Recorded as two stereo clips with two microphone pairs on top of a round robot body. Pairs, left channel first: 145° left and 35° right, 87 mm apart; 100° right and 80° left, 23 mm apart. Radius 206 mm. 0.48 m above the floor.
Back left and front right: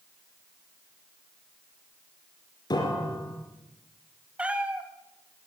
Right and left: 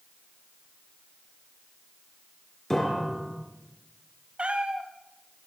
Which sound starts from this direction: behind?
A piano, at 2.7 s.